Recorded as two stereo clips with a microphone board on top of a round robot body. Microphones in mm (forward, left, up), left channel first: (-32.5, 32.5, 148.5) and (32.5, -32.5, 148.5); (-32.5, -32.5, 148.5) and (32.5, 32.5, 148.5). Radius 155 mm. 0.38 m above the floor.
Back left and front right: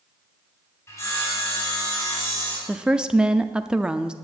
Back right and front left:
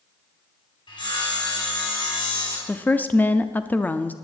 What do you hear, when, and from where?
0.9 s sawing: 165° right, 4 m
2.7 s a woman speaking: 105° right, 0.8 m